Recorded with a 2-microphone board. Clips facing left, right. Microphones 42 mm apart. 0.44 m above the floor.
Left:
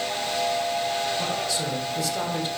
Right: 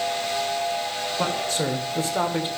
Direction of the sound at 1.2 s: 45° right (ahead or behind).